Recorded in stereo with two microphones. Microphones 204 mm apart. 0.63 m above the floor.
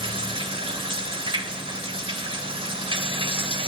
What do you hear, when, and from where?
0.0 s running water: 25° right (ahead or behind), 1.4 m